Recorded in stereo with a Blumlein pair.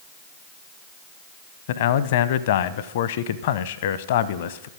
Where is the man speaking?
55° left, 0.7 m.